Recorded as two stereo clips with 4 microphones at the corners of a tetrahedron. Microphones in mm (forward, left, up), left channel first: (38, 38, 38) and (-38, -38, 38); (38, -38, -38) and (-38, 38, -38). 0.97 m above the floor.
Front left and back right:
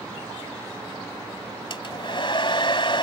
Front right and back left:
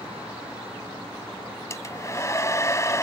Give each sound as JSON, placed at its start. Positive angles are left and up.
{"t": 1.7, "sound": "a hair dryer", "azimuth_deg": 15}